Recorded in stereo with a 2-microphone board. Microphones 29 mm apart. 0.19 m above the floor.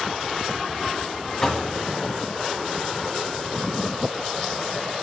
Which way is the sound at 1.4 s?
15° left (ahead or behind).